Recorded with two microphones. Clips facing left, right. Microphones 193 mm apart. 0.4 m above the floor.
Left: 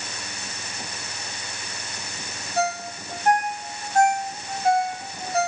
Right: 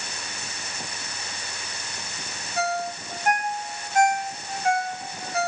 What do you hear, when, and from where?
2.6 s a ringtone: 30° left (ahead or behind), 1.0 m